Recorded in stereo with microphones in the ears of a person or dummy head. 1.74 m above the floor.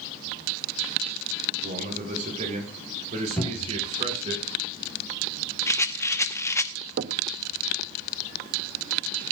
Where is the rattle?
15° left (ahead or behind), 1.0 m.